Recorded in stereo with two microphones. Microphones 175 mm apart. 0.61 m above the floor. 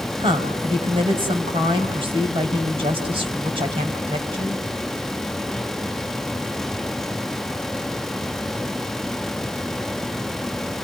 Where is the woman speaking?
30° right (ahead or behind), 3 m.